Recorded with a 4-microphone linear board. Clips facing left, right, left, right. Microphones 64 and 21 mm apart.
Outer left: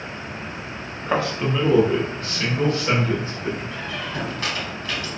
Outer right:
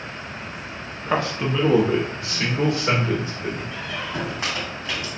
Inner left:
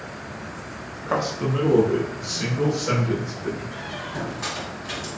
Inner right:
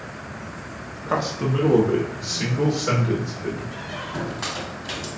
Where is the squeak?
20° right (ahead or behind), 1.5 m.